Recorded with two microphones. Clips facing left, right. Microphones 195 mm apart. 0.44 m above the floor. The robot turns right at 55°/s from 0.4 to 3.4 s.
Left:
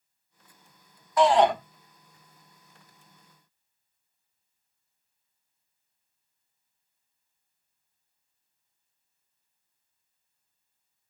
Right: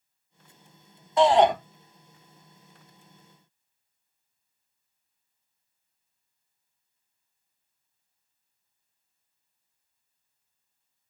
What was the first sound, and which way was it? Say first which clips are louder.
A shout: right 1 dB; 25° right (ahead or behind).